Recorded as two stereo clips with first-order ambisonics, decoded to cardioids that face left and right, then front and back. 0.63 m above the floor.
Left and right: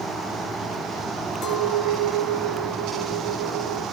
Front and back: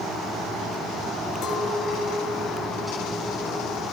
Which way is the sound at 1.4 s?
40° left.